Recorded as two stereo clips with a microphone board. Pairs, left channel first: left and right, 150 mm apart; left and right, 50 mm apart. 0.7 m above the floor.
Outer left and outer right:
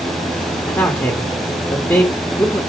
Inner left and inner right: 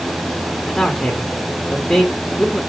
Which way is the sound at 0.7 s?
15° left (ahead or behind).